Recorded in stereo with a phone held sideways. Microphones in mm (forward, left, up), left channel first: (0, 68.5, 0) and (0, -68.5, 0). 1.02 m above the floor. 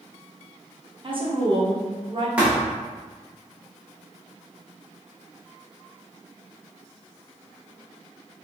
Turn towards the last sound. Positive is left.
turn(degrees=-10)  # may be behind; listen again after turning